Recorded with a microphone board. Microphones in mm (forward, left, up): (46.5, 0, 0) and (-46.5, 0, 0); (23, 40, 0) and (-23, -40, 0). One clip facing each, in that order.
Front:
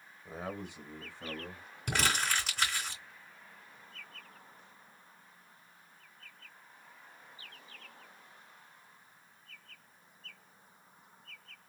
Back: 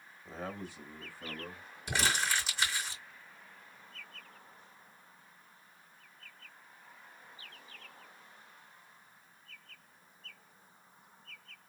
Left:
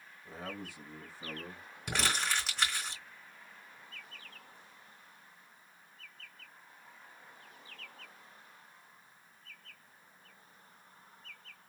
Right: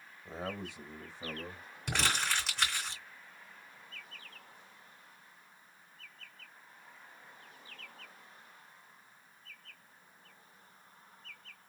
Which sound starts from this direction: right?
A man speaking, at 0.2 s.